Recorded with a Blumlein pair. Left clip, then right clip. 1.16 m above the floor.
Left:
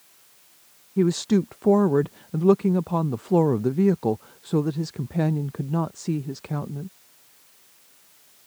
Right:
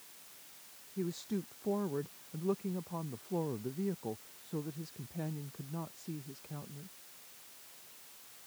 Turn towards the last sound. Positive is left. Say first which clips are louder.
# left 17 dB
turn(degrees=55)